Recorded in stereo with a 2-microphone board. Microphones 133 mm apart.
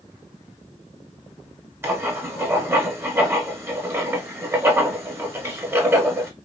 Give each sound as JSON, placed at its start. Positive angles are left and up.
{"t": 1.8, "sound": "writing", "side_deg": -20, "distance_m": 1.2}